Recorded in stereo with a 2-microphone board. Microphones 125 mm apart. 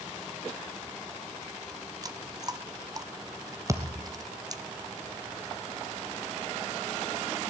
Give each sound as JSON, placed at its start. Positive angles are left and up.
{"t": 2.0, "sound": "chewing", "side_deg": -30, "distance_m": 0.9}
{"t": 3.7, "sound": "a thud", "side_deg": -25, "distance_m": 2.0}